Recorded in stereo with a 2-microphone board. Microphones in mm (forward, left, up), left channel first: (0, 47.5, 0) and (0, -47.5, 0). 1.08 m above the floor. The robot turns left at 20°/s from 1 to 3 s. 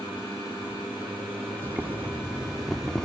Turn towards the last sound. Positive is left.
turn(degrees=5)  # may be behind; listen again after turning